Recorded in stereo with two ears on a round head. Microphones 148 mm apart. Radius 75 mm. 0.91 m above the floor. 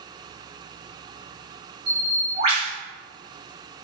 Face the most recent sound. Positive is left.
turn(degrees=-40)  # may be behind; listen again after turning